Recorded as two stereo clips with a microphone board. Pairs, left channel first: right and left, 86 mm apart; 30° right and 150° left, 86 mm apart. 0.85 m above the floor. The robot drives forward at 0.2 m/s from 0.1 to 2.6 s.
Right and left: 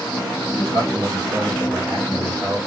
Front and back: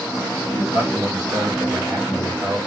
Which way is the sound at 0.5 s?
115° left.